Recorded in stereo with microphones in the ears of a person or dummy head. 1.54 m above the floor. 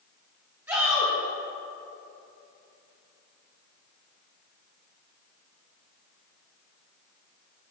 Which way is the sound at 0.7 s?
15° right (ahead or behind).